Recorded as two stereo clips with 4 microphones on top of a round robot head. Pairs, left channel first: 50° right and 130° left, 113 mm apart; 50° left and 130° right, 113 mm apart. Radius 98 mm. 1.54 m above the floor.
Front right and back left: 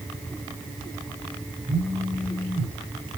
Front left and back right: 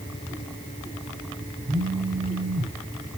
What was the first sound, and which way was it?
A phone buzzing, 165° right.